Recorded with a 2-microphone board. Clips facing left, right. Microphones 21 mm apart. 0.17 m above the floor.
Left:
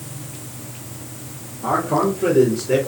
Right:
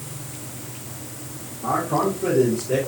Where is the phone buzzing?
No phone buzzing in this recording.